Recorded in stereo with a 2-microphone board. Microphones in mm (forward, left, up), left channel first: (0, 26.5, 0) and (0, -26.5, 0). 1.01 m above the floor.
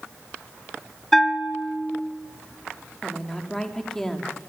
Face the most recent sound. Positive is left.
turn(degrees=10)  # may be behind; listen again after turning